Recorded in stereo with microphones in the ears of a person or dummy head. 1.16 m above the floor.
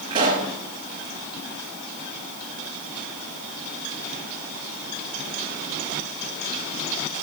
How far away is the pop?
About 3.5 m.